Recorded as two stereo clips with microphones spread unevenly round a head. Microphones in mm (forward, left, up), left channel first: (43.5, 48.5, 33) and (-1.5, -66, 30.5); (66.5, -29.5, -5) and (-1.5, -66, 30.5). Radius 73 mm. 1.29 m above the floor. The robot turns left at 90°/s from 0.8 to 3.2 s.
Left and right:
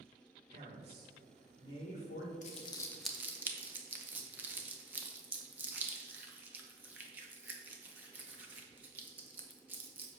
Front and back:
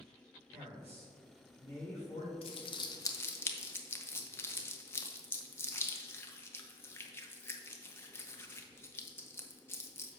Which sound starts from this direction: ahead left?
Crumpling, at 2.4 s.